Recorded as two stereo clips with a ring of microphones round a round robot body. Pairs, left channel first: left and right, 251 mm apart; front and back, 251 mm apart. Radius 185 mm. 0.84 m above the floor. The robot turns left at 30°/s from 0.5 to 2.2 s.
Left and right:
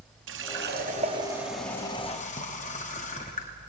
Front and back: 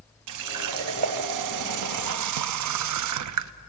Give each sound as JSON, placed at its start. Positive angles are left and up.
{"t": 0.3, "sound": "a running tap", "azimuth_deg": -150, "distance_m": 0.6}